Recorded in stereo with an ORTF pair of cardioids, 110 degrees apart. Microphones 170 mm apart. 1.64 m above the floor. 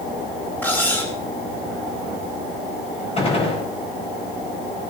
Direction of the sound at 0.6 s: 10° left.